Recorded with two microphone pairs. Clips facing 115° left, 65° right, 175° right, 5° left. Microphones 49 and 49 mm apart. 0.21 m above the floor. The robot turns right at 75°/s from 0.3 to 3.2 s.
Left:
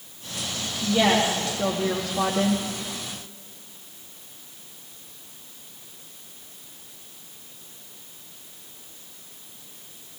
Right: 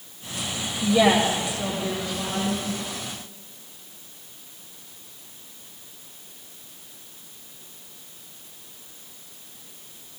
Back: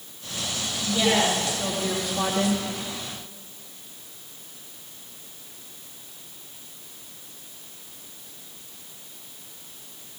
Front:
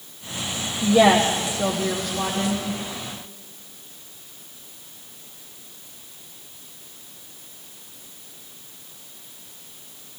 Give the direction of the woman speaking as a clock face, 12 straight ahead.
12 o'clock.